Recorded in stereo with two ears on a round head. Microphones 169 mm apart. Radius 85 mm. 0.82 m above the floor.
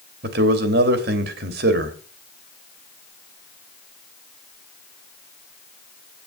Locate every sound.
0.2 s a man speaking: 55° right (ahead or behind), 1.9 m